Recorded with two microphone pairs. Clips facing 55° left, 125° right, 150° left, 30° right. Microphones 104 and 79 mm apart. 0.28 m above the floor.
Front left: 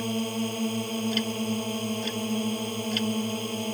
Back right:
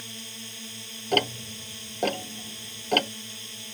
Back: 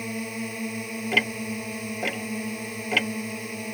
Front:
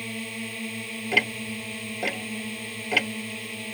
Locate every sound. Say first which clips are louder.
0.0 s a drone: front left 17 dB, back 3 dB; 80° left
1.1 s ticking: even, even; 115° right